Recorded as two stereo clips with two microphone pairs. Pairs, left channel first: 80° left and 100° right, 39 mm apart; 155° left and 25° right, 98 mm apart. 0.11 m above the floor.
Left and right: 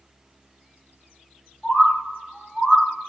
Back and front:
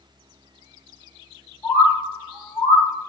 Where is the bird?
170° left, 2.0 m.